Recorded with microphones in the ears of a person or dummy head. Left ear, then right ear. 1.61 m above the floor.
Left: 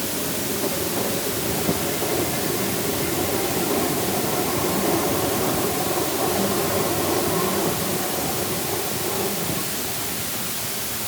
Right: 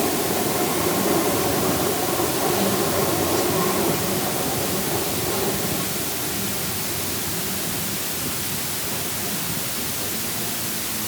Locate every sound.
Only background noise.